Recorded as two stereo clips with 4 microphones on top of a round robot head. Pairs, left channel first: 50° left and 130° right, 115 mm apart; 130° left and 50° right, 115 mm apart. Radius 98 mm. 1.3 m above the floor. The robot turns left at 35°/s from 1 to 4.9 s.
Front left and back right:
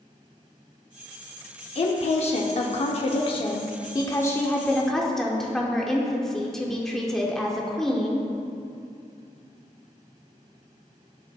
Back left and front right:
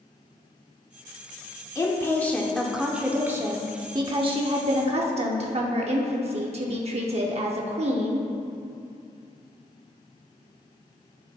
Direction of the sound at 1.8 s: 75° left.